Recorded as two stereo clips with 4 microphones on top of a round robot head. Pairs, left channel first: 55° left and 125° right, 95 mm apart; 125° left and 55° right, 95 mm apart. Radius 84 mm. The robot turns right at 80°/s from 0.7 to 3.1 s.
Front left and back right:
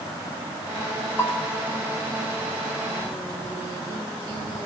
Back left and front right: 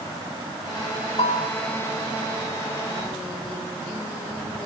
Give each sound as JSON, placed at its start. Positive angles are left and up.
{"t": 1.2, "sound": "a bell", "azimuth_deg": 115, "distance_m": 3.5}